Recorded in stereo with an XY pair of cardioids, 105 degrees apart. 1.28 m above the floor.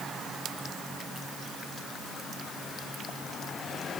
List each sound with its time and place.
Only background noise.